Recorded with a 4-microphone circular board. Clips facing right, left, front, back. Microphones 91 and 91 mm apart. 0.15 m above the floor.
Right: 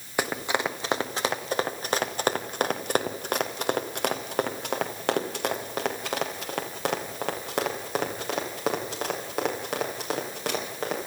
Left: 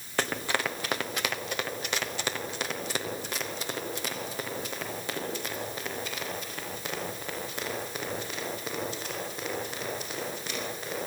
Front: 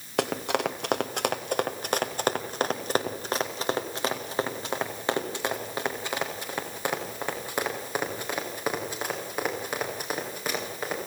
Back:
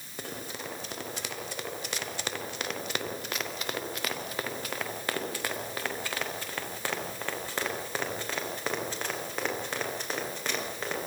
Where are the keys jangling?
I don't hear keys jangling.